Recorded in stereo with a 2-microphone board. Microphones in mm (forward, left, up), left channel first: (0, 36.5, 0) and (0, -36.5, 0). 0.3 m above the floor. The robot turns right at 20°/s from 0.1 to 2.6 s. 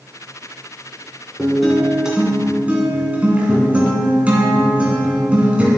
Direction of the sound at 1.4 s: 5° left (ahead or behind).